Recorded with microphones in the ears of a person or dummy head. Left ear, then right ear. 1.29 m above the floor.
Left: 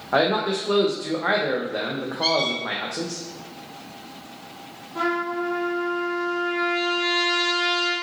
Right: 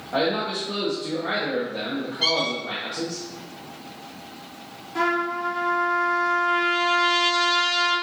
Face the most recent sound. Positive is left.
turn(degrees=-85)